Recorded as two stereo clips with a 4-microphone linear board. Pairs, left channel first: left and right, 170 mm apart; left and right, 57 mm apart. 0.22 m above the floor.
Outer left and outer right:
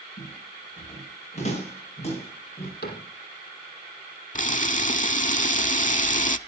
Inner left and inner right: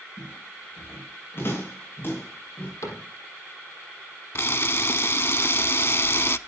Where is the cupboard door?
75° left (ahead or behind), 5 m.